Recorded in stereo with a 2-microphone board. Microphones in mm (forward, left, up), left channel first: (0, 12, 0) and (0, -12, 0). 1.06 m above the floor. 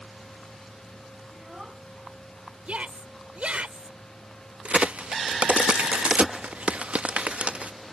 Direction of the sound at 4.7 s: 75° right (ahead or behind).